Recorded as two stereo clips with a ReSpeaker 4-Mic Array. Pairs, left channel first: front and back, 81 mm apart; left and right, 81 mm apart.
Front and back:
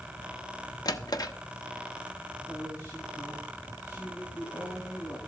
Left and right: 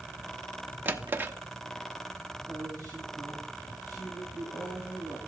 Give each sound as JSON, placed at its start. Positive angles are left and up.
{"t": 0.8, "sound": "a drawer", "azimuth_deg": -25, "distance_m": 0.8}
{"t": 2.5, "sound": "a woman speaking", "azimuth_deg": 45, "distance_m": 6.0}